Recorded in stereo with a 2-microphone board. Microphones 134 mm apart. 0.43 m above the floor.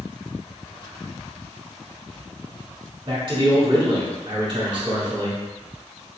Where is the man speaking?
40° right (ahead or behind), 1.4 m.